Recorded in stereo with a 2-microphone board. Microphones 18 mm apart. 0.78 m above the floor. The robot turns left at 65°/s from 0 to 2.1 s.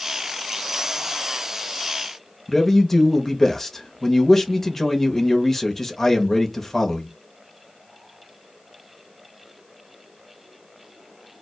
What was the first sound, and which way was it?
A man speaking, 20° left (ahead or behind).